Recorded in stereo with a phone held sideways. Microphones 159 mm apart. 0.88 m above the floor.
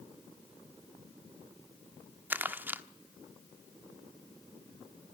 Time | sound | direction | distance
2.3 | crumpling | 10° right (ahead or behind) | 1.0 m